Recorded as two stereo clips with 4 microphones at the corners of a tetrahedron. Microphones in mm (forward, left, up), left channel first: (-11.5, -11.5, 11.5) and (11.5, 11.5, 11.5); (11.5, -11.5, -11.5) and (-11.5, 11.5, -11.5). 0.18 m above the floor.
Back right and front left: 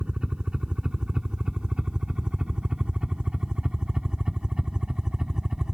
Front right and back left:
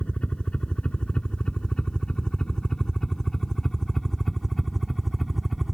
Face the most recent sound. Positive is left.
turn(degrees=55)